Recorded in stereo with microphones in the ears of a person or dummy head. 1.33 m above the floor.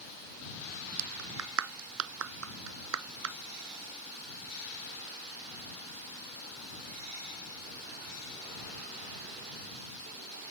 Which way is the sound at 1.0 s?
70° right (ahead or behind).